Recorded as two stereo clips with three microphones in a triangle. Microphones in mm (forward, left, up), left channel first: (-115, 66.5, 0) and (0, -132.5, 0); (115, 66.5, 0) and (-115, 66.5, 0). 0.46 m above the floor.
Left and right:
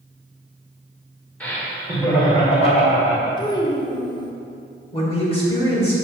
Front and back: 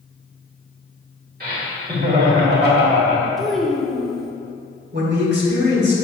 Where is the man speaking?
175° left, 2.0 m.